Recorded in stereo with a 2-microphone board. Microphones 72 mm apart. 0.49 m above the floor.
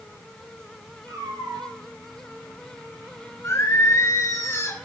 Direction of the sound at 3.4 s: 40° left (ahead or behind).